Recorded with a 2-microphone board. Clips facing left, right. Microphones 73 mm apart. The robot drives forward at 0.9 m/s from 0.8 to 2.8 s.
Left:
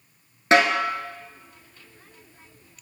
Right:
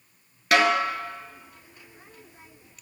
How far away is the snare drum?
About 0.6 m.